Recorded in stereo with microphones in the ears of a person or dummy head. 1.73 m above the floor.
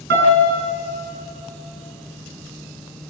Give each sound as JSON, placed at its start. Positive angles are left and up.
{"t": 0.1, "sound": "a piano", "side_deg": -55, "distance_m": 5.5}